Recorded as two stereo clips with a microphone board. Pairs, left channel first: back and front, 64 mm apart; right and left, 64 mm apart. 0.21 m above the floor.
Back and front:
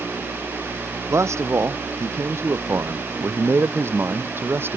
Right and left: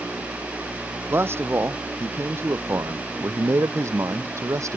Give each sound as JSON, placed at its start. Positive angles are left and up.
{"t": 1.1, "sound": "a man speaking", "azimuth_deg": 40}